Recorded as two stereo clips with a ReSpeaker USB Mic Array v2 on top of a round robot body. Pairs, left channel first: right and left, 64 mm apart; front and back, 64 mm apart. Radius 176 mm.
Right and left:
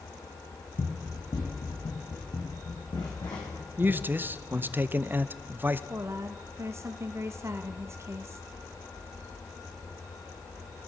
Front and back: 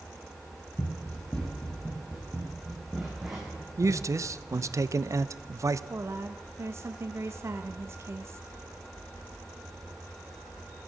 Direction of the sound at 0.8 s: 65° right.